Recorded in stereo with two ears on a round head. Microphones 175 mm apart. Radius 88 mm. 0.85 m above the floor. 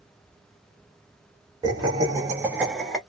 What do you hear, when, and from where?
1.6 s laughter: 20° right (ahead or behind), 1.0 m; by 3.0 s centre (ahead or behind), 1.1 m